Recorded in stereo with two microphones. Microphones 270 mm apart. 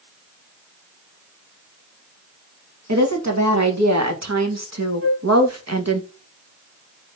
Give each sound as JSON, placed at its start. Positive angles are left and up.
{"t": 2.9, "sound": "a woman speaking", "side_deg": -85, "distance_m": 4.0}
{"t": 5.0, "sound": "a flute", "side_deg": -50, "distance_m": 1.9}